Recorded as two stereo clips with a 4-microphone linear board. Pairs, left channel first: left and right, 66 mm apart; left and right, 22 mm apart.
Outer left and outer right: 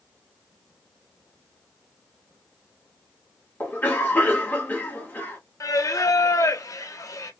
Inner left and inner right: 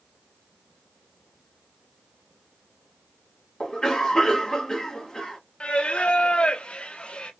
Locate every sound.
3.6 s a cough: 30° left (ahead or behind), 1.7 m
5.6 s singing: 55° left (ahead or behind), 0.6 m